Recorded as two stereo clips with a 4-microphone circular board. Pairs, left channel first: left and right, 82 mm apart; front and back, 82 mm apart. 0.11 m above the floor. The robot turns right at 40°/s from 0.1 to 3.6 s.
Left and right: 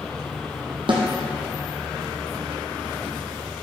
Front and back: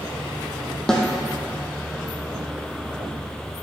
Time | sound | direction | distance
0.9 | a snare drum | 85° right | 1.7 m